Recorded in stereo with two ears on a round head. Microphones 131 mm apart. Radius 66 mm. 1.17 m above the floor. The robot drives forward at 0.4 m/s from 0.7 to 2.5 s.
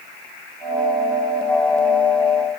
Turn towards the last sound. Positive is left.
No sound to turn to.